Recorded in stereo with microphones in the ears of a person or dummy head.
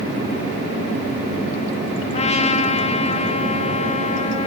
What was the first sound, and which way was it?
A trumpet, 35° left (ahead or behind).